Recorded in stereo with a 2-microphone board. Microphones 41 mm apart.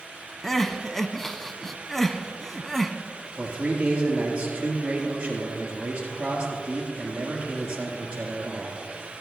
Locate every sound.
0.4 s crying: 10° left (ahead or behind), 0.7 m
3.4 s a man speaking: 30° right (ahead or behind), 3.5 m